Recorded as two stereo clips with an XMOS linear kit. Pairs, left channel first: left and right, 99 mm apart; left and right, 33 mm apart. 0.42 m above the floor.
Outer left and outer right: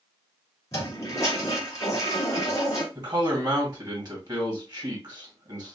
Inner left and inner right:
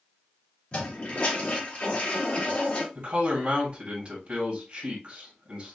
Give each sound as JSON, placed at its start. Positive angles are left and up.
{"t": 0.7, "sound": "a toilet flushing", "side_deg": 40, "distance_m": 3.0}
{"t": 3.0, "sound": "a man speaking", "side_deg": -40, "distance_m": 2.0}